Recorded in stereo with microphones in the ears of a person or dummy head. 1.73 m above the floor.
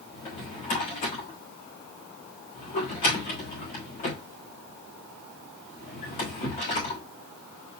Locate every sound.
0.1 s a drawer: 35° left (ahead or behind), 1.6 m